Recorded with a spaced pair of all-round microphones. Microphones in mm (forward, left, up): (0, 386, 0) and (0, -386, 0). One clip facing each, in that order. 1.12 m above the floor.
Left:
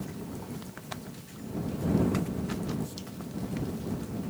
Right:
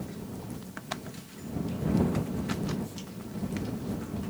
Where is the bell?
No bell in this recording.